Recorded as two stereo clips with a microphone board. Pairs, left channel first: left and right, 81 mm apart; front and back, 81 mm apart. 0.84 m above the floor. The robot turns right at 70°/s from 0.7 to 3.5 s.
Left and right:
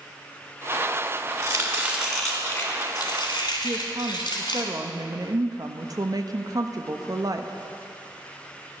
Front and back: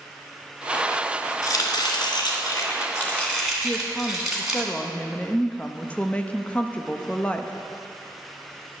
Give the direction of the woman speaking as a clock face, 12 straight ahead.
2 o'clock.